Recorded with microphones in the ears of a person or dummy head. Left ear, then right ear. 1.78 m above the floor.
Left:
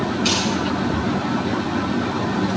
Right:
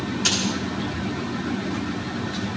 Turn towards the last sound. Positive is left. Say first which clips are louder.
# left 1 dB
turn(degrees=-55)  # may be behind; listen again after turning